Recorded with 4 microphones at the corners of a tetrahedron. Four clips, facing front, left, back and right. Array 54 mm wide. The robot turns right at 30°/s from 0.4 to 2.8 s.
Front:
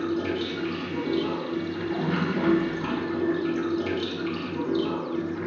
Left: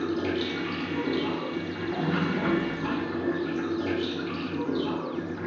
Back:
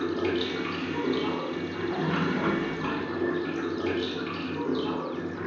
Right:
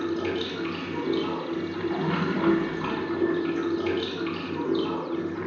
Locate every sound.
0.0 s running water: 160° right, 1.2 m; by 5.5 s 90° right, 1.2 m